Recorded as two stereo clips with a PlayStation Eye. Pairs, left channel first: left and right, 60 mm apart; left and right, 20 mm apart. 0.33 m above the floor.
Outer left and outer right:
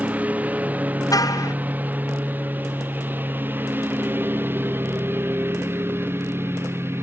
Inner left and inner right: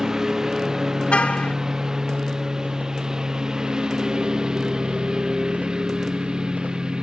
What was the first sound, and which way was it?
A lawn mower, 25° right (ahead or behind).